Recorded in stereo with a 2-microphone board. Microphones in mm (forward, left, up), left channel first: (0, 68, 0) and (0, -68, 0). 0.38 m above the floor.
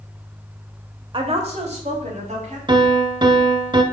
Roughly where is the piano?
Right.